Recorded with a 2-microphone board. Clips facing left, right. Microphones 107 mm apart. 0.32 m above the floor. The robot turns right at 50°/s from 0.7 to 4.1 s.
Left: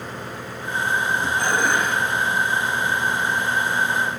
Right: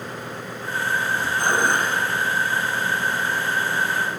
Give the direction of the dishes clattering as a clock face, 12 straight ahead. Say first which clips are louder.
Right 2 dB; 2 o'clock.